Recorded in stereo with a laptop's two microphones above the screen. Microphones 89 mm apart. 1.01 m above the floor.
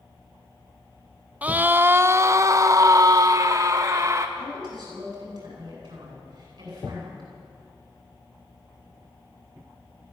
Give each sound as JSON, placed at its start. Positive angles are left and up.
{"t": 1.4, "sound": "a scream", "side_deg": -15, "distance_m": 0.8}
{"t": 4.4, "sound": "a woman speaking", "side_deg": -45, "distance_m": 9.5}